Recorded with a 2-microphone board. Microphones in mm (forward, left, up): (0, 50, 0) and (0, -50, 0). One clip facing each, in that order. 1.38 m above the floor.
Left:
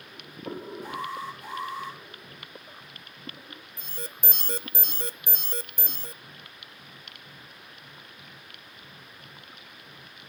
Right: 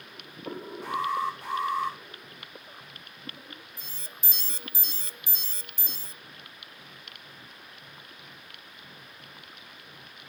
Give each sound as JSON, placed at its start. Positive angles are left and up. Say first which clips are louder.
{"t": 0.8, "sound": "an alarm", "louder": "right 8 dB", "side_deg": -75, "distance_m": 9.5}
{"t": 3.8, "sound": "an alarm", "louder": "left 7 dB", "side_deg": 55, "distance_m": 0.7}